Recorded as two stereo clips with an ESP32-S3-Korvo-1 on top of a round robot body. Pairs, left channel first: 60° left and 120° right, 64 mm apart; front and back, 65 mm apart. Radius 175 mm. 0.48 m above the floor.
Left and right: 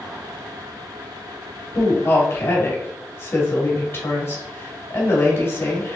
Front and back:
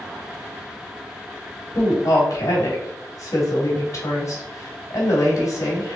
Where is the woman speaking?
20° left, 2 m.